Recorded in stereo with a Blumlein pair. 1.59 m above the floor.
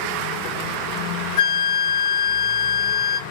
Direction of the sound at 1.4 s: 50° left.